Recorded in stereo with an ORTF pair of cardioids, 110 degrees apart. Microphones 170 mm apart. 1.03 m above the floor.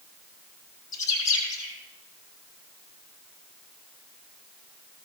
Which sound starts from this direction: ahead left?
A bird, at 0.9 s.